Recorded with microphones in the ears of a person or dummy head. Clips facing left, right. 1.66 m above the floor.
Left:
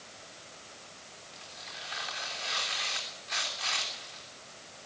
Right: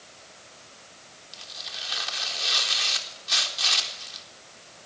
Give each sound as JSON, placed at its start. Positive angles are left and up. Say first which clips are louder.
{"t": 1.3, "sound": "tearing paper", "louder": "right 3 dB", "side_deg": -60, "distance_m": 4.0}